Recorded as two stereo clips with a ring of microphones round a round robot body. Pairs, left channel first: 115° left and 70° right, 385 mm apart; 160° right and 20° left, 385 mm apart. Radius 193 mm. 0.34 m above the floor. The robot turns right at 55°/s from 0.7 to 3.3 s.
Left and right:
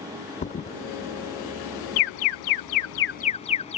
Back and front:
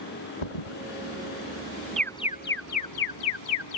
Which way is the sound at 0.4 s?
175° right.